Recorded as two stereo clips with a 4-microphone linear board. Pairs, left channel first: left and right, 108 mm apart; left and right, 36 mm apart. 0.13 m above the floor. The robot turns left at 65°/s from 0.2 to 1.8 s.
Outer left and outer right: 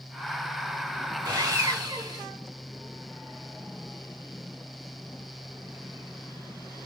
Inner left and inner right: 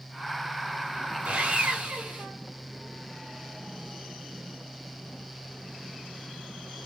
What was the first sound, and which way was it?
Sawing, 80° right.